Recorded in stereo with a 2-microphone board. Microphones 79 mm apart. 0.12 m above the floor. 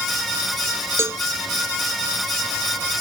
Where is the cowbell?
35° right (ahead or behind).